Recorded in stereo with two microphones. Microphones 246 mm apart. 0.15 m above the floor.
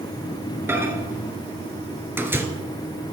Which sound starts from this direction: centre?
A microwave, at 0.7 s.